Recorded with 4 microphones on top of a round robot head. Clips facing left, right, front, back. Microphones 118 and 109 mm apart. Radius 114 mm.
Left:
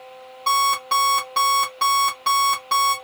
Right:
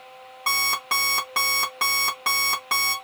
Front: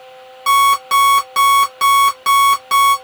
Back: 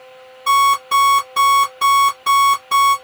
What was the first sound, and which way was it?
An alarm clock, 30° right.